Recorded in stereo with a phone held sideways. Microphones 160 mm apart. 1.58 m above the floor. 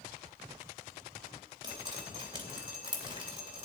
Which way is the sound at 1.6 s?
30° right (ahead or behind).